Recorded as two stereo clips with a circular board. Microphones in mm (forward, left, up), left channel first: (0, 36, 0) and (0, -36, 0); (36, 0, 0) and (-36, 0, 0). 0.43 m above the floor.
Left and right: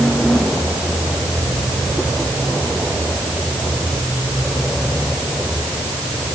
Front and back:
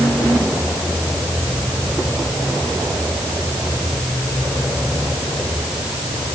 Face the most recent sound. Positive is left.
No sound to turn to.